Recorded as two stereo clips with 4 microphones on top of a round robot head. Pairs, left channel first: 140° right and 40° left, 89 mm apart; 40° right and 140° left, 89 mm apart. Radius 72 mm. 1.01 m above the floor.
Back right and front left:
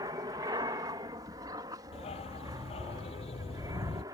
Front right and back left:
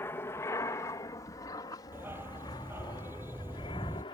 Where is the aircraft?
15° left; by 4.1 s 10° right.